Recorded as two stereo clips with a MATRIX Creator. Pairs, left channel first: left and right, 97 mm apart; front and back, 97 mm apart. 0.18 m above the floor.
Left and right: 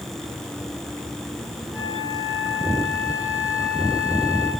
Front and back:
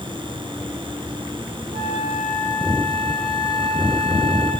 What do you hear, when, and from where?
1.7 s a flute: 160° right, 7 m